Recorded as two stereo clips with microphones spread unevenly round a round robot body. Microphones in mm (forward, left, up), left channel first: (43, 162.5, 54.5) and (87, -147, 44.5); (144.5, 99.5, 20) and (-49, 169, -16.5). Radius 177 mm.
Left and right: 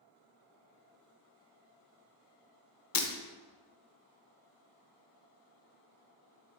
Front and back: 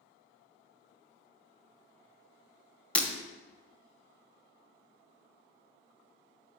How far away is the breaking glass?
About 0.7 m.